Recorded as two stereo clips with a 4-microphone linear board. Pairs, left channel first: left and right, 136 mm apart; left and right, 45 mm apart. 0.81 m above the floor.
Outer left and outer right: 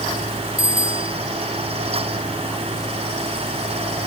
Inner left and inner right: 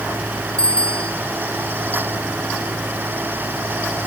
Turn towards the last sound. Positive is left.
turn(degrees=20)  # may be behind; listen again after turning